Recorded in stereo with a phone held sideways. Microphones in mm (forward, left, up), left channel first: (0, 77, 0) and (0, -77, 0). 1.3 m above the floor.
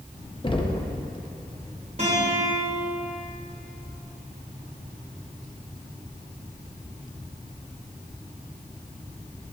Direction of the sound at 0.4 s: 35° left (ahead or behind).